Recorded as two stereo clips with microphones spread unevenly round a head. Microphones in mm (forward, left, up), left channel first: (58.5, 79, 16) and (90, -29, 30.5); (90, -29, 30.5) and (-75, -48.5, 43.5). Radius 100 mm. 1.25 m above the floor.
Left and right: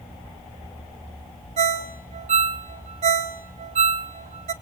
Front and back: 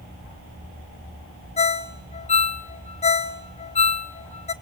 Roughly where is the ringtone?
Ahead right.